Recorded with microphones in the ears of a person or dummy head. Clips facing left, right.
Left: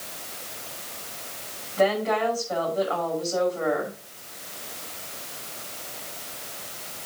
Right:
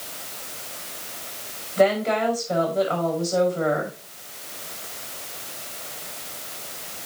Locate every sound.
1.8 s a woman speaking: 50° right (ahead or behind), 5.5 m